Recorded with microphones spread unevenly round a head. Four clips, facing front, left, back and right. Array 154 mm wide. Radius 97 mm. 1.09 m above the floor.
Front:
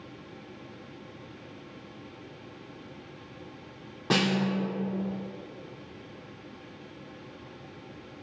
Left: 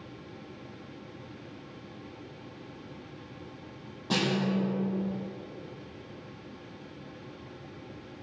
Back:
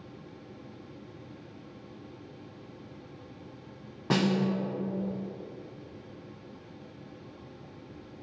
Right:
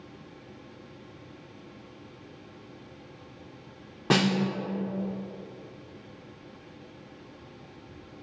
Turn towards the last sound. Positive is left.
turn(degrees=-60)